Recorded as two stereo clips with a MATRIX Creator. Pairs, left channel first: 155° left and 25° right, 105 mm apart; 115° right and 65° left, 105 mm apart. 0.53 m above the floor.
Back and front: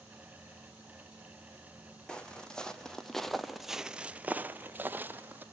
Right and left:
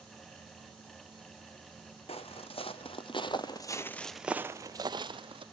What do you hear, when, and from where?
2.1 s footsteps: 120° right, 1.4 m; by 5.4 s 45° left, 1.0 m